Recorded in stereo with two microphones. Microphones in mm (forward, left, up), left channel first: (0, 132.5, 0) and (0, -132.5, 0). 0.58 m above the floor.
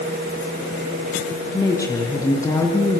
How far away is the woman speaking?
About 6 m.